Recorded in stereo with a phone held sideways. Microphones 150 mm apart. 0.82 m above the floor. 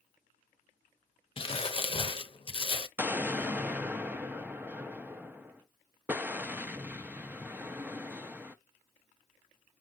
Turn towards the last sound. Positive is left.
turn(degrees=-10)  # may be behind; listen again after turning